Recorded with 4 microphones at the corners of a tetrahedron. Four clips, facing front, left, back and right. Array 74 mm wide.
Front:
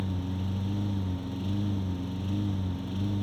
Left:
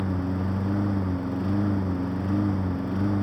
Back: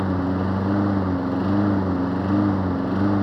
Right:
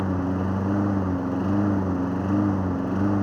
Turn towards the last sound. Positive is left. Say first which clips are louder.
# right 3 dB, back 12 dB
turn(degrees=-165)